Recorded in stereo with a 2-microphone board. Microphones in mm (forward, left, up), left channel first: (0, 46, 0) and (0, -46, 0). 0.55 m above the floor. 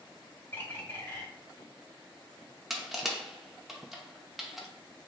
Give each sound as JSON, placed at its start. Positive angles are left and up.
{"t": 0.5, "sound": "a bird", "side_deg": 20, "distance_m": 1.0}
{"t": 2.7, "sound": "crushing", "side_deg": 0, "distance_m": 0.6}